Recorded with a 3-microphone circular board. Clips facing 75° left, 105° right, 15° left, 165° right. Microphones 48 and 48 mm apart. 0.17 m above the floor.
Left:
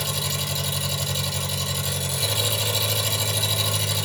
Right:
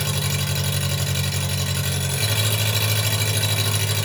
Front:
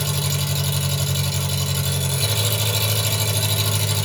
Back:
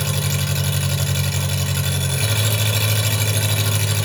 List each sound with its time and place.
0.0 s an engine running: 135° right, 3 m